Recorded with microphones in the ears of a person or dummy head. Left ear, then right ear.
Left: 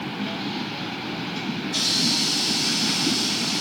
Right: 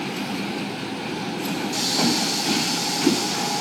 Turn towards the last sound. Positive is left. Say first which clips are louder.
# left 1 dB
turn(degrees=-50)  # may be behind; listen again after turning